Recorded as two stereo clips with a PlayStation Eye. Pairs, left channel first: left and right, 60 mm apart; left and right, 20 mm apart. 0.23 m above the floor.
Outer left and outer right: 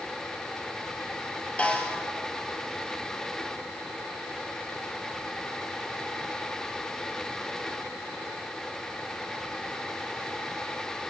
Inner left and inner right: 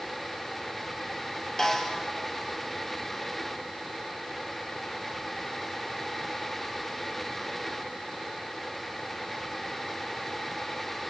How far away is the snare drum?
About 3 m.